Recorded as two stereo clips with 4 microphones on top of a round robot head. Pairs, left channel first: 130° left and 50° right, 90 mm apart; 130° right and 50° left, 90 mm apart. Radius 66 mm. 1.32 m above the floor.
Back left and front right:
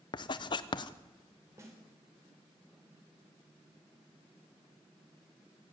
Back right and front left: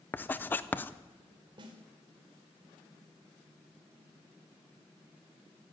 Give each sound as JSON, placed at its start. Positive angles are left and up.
{"t": 0.1, "sound": "writing", "azimuth_deg": 160, "distance_m": 0.9}
{"t": 1.6, "sound": "a snare drum", "azimuth_deg": 10, "distance_m": 4.5}